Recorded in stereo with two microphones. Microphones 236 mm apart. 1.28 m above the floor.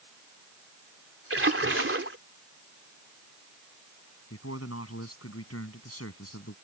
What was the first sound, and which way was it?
A splash, 60° right (ahead or behind).